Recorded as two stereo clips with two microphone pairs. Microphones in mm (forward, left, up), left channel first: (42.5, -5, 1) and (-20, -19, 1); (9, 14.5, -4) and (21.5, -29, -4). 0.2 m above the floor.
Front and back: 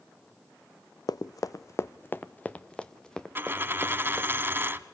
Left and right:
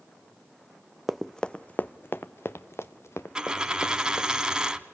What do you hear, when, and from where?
1.1 s running footsteps: 15° left, 0.5 m; by 4.3 s 100° left, 1.8 m
3.4 s a dropped coin: 135° right, 0.8 m